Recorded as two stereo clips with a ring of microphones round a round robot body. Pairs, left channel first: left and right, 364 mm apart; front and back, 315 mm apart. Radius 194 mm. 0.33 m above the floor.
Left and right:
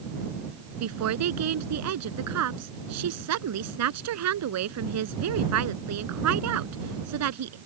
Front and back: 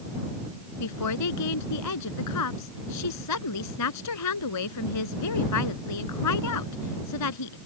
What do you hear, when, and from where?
0.8 s a woman speaking: 40° right